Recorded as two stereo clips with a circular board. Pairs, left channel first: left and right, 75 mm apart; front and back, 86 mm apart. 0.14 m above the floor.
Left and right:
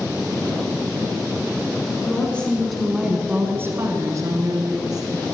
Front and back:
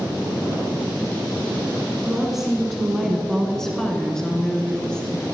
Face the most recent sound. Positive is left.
turn(degrees=-80)